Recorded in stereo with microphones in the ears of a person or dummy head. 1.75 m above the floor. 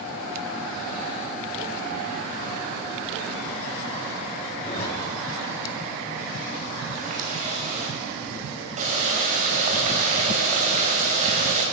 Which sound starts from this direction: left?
A zipper, at 4.6 s.